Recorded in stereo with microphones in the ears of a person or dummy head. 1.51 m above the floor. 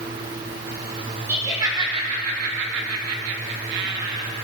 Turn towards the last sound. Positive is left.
turn(degrees=-50)  # may be behind; listen again after turning